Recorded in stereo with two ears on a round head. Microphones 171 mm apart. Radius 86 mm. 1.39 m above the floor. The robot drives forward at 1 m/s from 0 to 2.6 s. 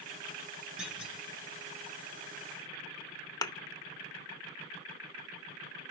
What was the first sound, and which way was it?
A clunk, 5° right (ahead or behind).